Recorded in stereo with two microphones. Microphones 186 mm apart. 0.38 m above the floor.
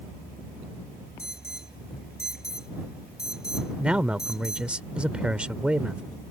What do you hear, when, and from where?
1.2 s an alarm: 60° left (ahead or behind)
3.8 s a man speaking: 5° right (ahead or behind)